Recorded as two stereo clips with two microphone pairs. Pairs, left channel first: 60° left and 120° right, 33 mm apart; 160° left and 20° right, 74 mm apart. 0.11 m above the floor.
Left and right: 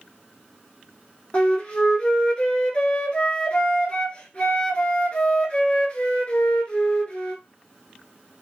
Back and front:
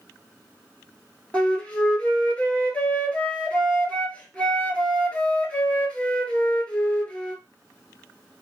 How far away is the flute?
About 0.7 m.